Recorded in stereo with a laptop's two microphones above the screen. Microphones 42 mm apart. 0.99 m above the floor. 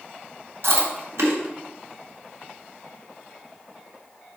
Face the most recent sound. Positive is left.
turn(degrees=-85)